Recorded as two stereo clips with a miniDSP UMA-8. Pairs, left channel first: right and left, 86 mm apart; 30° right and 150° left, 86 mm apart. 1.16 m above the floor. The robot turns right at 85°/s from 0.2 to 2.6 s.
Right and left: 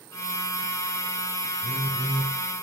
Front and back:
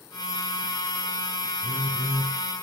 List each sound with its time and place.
1.6 s a phone buzzing: 20° left, 5.5 m; by 2.3 s 80° left, 5.5 m